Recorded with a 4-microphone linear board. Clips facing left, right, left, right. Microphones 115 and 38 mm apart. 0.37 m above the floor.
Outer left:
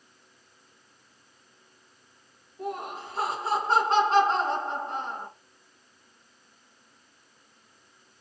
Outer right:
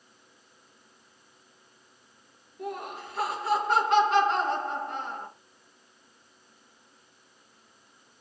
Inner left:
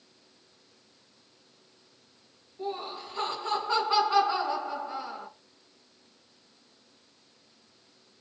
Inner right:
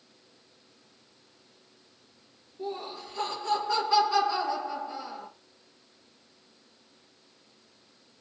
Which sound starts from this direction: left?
Laughter, at 2.6 s.